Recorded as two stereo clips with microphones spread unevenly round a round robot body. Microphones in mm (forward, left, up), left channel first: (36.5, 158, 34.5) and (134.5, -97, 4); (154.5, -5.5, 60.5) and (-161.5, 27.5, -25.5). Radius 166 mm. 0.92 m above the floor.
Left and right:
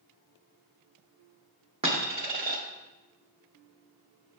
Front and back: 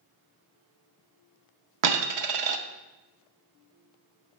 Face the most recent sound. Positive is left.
turn(degrees=-145)